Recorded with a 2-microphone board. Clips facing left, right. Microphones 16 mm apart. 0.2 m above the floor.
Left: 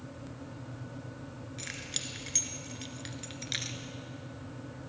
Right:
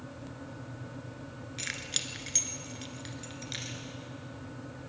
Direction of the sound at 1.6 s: 25° right (ahead or behind).